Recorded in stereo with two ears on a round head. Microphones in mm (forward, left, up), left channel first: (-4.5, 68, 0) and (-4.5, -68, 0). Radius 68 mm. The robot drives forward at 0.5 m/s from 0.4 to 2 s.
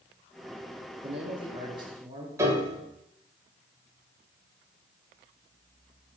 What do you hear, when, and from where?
1.0 s a man speaking: 40° right (ahead or behind), 1.0 m; by 2.3 s 25° right (ahead or behind), 1.4 m
2.4 s a piano: 20° right (ahead or behind), 1.4 m